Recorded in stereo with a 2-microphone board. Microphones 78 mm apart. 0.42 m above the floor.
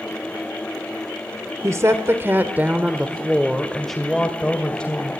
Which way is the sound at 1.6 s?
40° right (ahead or behind).